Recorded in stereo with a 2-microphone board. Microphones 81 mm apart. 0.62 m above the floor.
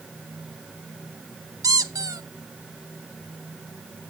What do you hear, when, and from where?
1.6 s a squeak: 45° right (ahead or behind), 0.6 m